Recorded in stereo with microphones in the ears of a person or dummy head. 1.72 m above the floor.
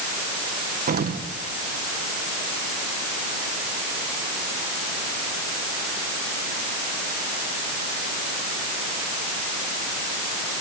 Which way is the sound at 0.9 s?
50° right (ahead or behind).